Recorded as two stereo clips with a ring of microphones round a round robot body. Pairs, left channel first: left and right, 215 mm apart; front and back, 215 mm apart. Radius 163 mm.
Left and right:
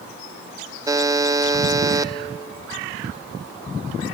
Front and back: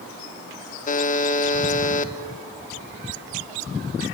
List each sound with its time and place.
0.9 s a buzzer: 20° right, 0.7 m